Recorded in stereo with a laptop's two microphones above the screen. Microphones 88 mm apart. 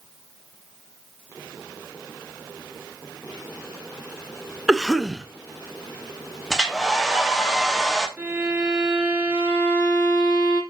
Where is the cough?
5° right (ahead or behind), 0.7 m.